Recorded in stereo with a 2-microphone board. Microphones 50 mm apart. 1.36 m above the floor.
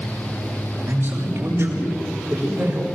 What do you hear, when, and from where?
0.9 s a man speaking: 45° right (ahead or behind), 7.5 m; by 2.9 s 55° right (ahead or behind), 6.5 m